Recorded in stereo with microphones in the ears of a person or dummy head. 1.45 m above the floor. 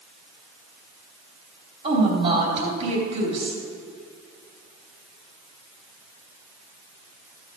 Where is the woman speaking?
35° right (ahead or behind), 4 m.